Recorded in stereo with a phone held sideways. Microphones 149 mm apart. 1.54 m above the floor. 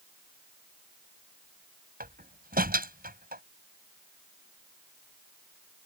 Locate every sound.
2.0 s a door slam: 80° right